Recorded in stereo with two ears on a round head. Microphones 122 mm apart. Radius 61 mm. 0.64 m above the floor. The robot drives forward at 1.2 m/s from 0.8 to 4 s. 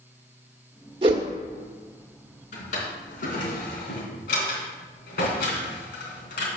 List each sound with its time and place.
1.0 s a whoosh: 40° right (ahead or behind), 1.2 m; by 1.3 s 35° right (ahead or behind), 1.4 m
2.5 s a drawer: 55° left (ahead or behind), 4 m; by 6.5 s 80° left, 3.5 m